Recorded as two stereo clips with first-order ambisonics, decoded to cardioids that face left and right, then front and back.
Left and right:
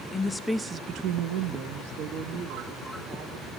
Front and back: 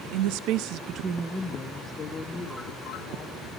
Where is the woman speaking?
160° left, 0.9 m; by 3.5 s 60° right, 2.5 m.